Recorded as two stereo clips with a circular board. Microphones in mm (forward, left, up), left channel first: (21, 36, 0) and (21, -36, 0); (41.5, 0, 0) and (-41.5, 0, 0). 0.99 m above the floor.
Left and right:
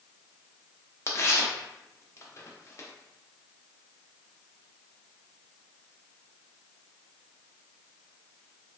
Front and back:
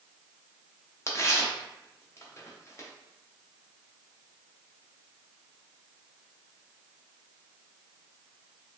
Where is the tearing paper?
50° left, 0.5 m.